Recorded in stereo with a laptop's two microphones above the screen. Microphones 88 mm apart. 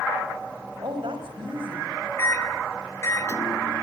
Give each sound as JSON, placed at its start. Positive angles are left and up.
{"t": 0.8, "sound": "a woman speaking", "side_deg": -65, "distance_m": 5.0}
{"t": 2.2, "sound": "a microwave", "side_deg": 30, "distance_m": 1.9}